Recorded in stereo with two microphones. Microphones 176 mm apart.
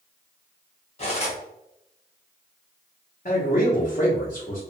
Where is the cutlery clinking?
35° left (ahead or behind), 1.0 m.